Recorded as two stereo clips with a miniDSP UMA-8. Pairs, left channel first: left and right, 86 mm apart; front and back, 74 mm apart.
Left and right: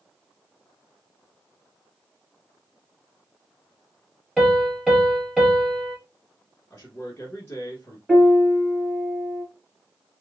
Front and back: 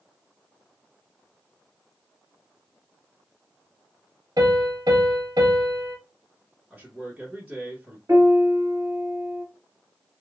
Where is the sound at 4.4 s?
175° right, 1.9 m.